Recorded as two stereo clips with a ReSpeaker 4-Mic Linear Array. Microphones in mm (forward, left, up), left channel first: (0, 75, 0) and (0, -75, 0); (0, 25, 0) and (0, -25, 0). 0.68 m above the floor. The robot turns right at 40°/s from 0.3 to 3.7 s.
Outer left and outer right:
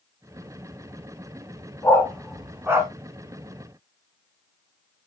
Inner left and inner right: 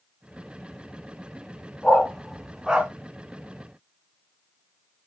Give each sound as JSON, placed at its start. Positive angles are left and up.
{"t": 1.8, "sound": "a dog barking", "side_deg": 20, "distance_m": 2.0}